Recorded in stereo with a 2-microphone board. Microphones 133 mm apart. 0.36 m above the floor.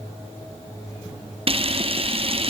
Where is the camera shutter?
45° right (ahead or behind), 2 m.